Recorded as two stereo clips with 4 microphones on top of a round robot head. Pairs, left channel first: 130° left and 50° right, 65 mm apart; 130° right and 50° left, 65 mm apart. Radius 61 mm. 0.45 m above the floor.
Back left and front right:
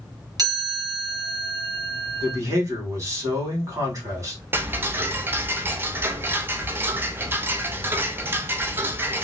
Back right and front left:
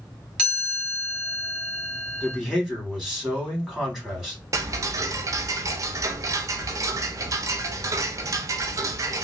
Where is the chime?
25° right, 1.8 m.